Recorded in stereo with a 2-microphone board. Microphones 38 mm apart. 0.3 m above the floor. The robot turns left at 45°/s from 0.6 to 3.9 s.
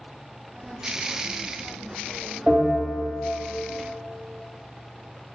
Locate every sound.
2.5 s a bell: centre (ahead or behind), 1.7 m; by 3.3 s 20° right (ahead or behind), 1.7 m